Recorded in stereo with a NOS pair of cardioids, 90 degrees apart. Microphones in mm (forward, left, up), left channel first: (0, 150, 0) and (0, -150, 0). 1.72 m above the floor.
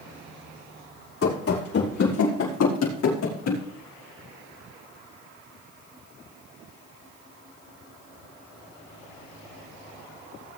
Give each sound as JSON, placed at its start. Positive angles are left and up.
{"t": 1.2, "sound": "running footsteps", "azimuth_deg": 55, "distance_m": 5.5}